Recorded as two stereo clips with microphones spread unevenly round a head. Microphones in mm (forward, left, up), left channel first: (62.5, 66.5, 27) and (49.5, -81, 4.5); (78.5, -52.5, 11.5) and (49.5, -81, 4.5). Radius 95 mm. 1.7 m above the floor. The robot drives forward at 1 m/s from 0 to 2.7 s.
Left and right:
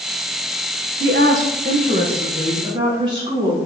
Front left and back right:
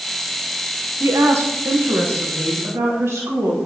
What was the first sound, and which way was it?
A woman speaking, 140° right.